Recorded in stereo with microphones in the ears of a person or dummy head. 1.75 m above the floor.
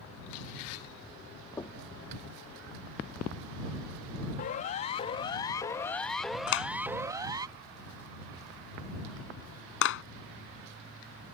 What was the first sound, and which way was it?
Knocking, 15° left (ahead or behind).